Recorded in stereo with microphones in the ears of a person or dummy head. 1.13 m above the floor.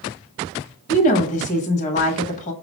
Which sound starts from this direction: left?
A woman speaking, at 0.9 s.